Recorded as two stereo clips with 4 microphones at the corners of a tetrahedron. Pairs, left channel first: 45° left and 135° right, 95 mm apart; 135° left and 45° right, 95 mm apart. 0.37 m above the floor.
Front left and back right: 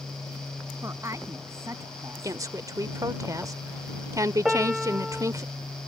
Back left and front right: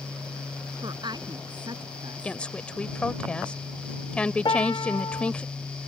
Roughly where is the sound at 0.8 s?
Right.